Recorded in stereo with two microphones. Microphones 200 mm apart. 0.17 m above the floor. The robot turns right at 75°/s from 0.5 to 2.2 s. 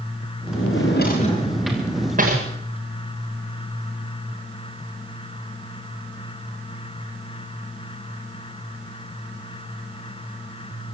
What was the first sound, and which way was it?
A drawer, 80° left.